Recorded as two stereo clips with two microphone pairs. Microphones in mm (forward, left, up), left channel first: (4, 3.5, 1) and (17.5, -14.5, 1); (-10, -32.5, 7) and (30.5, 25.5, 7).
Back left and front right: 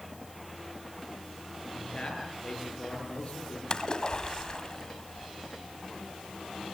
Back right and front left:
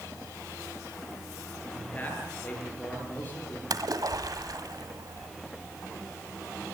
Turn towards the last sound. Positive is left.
turn(degrees=75)